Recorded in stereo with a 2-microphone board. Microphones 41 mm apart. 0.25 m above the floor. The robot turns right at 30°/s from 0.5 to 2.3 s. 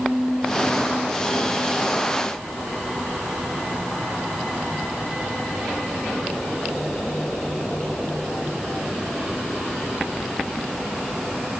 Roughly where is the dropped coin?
No dropped coin in this recording.